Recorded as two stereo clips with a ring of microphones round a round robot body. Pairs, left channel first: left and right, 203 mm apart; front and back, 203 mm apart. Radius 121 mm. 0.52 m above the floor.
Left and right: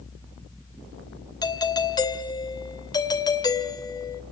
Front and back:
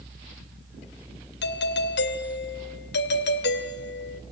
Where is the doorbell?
20° left, 2.5 m.